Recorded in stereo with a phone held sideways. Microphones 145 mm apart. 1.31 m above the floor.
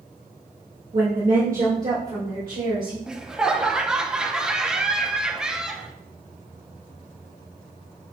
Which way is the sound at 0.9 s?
40° right (ahead or behind).